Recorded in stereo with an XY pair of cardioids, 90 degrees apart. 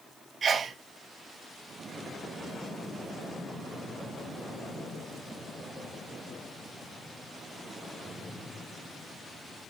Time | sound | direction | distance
0.4 | a sneeze | 50° right | 0.7 m